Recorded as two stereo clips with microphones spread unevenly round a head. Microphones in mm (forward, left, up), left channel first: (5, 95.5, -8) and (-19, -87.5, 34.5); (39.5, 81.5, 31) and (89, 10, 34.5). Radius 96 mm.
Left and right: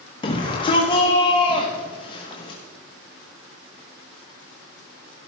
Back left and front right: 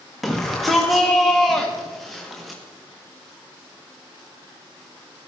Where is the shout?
35° left, 1.4 m.